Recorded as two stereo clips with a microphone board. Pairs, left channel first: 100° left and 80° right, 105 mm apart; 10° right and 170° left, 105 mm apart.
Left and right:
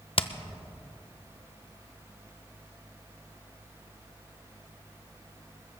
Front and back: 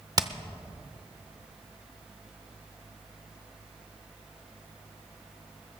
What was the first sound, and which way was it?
Hammering, 120° left.